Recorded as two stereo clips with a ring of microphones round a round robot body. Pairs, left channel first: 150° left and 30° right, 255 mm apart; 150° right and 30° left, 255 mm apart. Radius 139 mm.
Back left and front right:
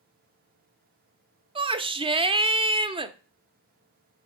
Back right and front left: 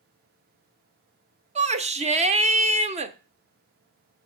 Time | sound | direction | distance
1.6 | a shout | 10° left | 1.0 m